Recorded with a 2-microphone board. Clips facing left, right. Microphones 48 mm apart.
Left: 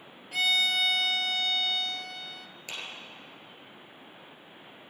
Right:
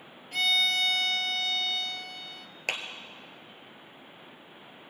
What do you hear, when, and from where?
0.3 s a violin: 5° left (ahead or behind), 0.7 m
2.7 s a clap: 65° right (ahead or behind), 1.7 m